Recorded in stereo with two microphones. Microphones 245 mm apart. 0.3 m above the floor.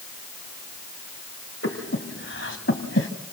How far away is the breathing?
About 2.5 m.